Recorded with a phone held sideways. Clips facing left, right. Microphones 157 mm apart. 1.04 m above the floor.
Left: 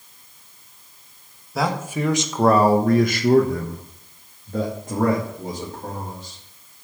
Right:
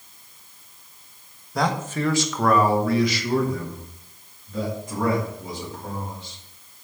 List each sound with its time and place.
1.6 s a man speaking: 5° left (ahead or behind), 1.5 m; by 6.4 s 45° left (ahead or behind), 3.5 m